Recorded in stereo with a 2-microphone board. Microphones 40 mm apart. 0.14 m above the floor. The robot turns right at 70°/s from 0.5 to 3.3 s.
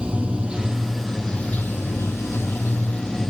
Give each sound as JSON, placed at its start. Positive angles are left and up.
{"t": 0.0, "sound": "running water", "azimuth_deg": -30, "distance_m": 0.9}